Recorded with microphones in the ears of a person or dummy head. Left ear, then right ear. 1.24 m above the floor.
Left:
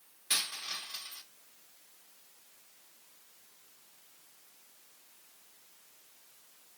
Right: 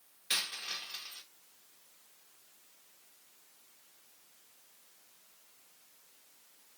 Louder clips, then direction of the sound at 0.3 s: Left 1 dB; 20° right (ahead or behind).